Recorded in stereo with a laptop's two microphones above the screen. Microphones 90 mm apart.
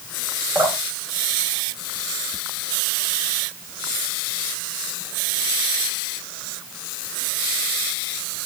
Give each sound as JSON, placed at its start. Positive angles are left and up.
{"t": 0.6, "sound": "dripping", "side_deg": -35, "distance_m": 4.5}